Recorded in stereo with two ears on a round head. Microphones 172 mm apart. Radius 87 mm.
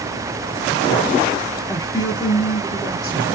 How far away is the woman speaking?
About 1.3 m.